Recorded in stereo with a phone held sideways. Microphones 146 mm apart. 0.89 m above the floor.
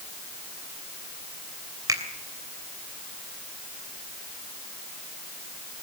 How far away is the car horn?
No car horn in this recording.